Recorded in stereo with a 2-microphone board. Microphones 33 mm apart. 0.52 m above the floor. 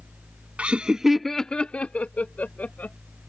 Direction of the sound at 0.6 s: 40° right (ahead or behind).